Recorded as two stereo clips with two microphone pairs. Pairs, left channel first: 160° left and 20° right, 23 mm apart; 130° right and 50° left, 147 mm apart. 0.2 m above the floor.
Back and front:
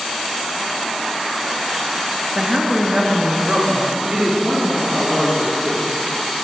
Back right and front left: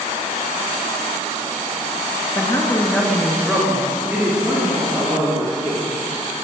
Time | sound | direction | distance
2.4 | a woman speaking | 70° right | 2.5 m